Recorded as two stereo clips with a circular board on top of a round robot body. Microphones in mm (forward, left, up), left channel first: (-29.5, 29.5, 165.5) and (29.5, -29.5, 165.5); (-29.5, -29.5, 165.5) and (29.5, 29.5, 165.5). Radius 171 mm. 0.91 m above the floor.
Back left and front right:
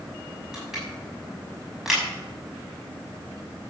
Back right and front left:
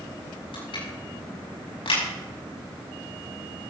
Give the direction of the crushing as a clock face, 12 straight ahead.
4 o'clock.